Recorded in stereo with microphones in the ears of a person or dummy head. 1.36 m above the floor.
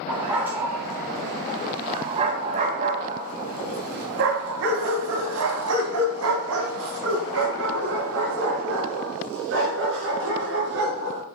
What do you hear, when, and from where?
0.1 s a dog barking: 5° right (ahead or behind), 3.5 m; by 11.2 s 60° right (ahead or behind), 6 m